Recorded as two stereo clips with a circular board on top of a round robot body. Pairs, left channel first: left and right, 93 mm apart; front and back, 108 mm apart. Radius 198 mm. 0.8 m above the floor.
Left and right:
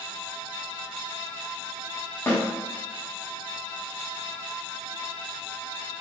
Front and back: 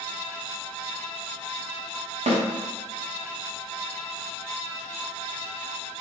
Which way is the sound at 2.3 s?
155° left.